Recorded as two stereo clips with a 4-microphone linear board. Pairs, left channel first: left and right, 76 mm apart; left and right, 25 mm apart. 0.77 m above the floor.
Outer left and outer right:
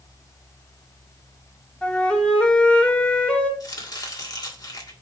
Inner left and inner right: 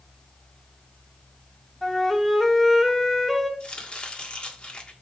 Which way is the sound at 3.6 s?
50° left (ahead or behind).